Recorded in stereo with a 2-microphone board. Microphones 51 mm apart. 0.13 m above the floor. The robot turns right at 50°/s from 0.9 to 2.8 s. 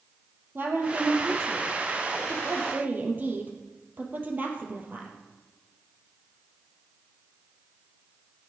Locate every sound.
0.6 s a woman speaking: 45° right (ahead or behind), 3.5 m; by 5.1 s 35° right (ahead or behind), 3.5 m